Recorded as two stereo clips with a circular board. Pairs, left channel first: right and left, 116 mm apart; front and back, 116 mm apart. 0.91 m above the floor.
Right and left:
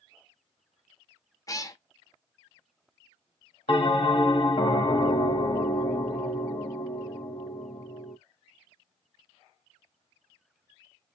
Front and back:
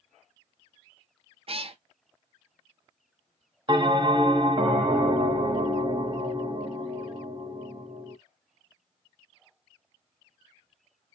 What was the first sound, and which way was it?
A cat meowing, 150° right.